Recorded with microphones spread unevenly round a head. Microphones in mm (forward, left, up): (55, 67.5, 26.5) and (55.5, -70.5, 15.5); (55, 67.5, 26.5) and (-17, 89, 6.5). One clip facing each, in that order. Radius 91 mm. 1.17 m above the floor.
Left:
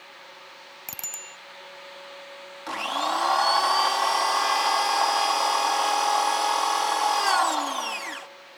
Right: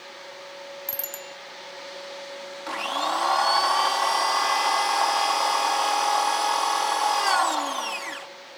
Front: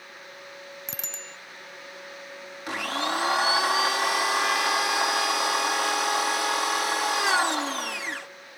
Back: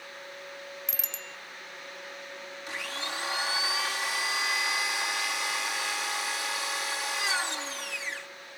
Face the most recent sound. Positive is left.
turn(degrees=0)